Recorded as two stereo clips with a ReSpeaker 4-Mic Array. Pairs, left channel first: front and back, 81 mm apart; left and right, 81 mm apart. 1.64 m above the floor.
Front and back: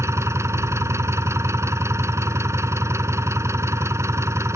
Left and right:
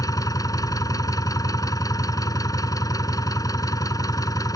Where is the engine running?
130° left.